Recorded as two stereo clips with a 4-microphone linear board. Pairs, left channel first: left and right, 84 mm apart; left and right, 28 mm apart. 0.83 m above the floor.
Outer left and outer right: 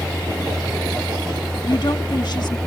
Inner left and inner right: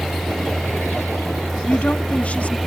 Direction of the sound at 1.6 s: 65° left (ahead or behind).